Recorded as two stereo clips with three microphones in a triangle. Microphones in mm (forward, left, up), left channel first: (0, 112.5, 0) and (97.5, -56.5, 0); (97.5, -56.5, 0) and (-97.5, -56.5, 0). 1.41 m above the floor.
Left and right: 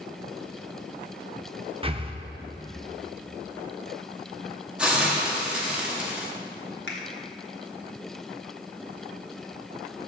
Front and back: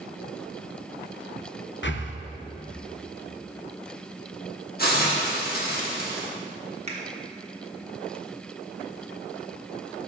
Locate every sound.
1.8 s breathing: straight ahead, 0.6 m
4.8 s a hiss: 25° left, 1.3 m
6.9 s a finger snap: 125° left, 1.2 m